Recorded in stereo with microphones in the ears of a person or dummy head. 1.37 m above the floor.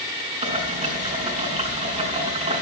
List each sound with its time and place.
0.4 s boiling: 35° right (ahead or behind), 4.5 m